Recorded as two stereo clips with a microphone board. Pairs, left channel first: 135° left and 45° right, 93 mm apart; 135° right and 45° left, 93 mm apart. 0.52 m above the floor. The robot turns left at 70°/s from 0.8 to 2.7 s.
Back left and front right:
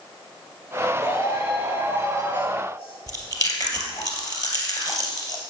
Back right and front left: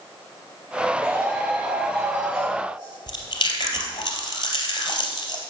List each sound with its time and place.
1.0 s a shout: 130° left, 4 m; by 3.0 s 10° left, 4 m
3.1 s chewing: 175° right, 2.5 m